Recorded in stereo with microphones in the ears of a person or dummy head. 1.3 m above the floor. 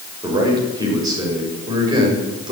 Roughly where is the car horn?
No car horn in this recording.